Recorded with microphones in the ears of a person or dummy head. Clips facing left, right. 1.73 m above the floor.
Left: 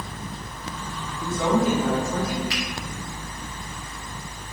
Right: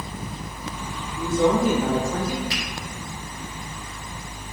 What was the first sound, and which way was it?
A woman speaking, 15° right (ahead or behind).